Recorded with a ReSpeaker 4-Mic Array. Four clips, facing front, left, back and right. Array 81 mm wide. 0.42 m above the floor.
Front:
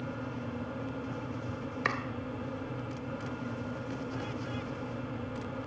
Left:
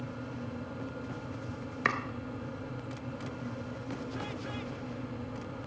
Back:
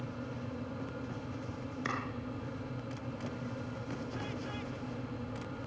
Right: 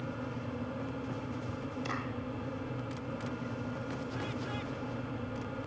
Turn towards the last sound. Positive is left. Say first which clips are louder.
# left 9 dB, front 4 dB
turn(degrees=65)